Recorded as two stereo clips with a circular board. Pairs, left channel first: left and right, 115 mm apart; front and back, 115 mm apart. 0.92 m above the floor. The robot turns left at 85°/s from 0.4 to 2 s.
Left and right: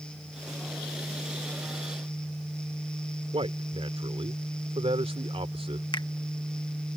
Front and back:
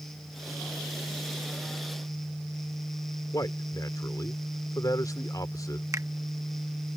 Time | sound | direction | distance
3.3 | a man speaking | 55° right | ?
5.9 | a finger snap | 125° left | ?